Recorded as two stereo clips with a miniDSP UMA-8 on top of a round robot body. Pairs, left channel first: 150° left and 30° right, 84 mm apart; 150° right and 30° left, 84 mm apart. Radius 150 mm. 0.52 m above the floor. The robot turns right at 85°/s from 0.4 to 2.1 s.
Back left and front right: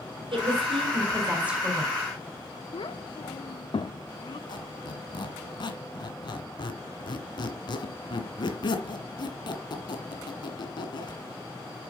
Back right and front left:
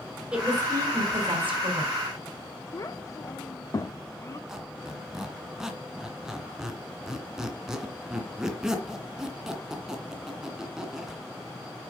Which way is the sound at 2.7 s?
165° left.